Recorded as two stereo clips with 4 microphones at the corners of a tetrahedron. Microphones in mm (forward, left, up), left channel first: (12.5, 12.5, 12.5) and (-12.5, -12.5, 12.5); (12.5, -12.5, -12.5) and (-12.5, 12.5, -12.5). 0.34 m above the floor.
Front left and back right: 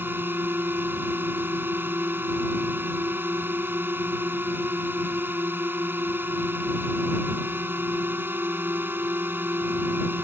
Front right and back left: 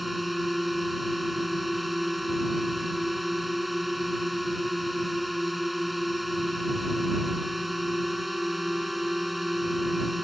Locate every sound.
0.0 s a drone: 135° right